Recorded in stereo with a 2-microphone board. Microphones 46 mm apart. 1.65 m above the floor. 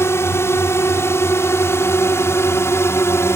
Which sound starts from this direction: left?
A drone, at 0.0 s.